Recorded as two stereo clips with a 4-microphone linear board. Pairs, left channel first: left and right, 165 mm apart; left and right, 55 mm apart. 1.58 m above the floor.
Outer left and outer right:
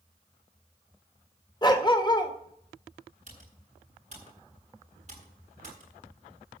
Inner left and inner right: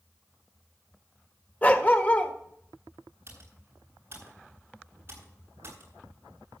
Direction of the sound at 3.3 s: 50° right (ahead or behind).